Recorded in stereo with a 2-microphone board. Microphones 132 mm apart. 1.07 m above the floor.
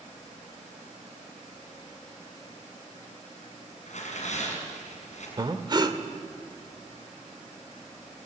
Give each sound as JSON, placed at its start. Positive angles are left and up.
{"t": 3.9, "sound": "tearing paper", "side_deg": 60, "distance_m": 6.5}
{"t": 5.4, "sound": "breathing", "side_deg": -35, "distance_m": 1.4}